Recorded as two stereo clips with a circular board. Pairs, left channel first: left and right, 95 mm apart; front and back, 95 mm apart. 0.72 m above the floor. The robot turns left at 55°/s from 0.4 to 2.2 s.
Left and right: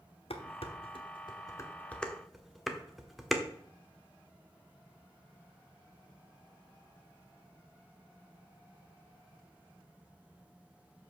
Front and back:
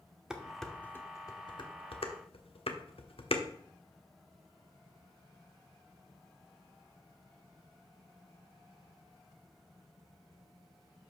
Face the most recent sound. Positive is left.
turn(degrees=0)